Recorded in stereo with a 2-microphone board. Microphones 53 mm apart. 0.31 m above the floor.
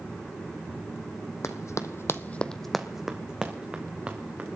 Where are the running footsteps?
75° left (ahead or behind), 1.1 m; by 4.6 s 30° right (ahead or behind), 3 m.